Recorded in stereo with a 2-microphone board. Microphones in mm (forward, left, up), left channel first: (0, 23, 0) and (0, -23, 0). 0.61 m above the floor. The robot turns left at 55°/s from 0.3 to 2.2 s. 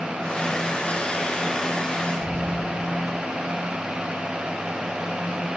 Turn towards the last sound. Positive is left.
turn(degrees=-30)  # may be behind; listen again after turning